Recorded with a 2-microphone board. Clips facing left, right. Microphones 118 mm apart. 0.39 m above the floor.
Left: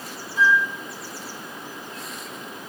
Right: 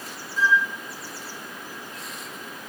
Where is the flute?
65° left (ahead or behind), 1.3 m.